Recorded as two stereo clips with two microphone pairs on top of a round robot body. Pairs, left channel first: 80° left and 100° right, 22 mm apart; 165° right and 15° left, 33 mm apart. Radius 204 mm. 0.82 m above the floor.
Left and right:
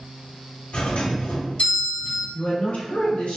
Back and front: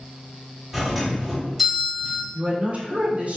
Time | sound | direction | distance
0.7 | a doorbell | 95° left | 1.5 m
2.3 | a woman speaking | 55° left | 1.1 m